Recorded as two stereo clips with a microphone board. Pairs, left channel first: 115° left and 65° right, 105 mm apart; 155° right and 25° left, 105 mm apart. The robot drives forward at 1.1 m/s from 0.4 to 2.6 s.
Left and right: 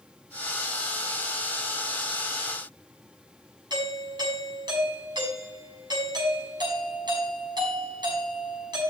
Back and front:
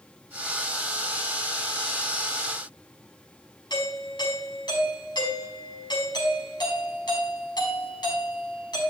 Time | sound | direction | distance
3.7 | a doorbell | 110° right | 5.5 m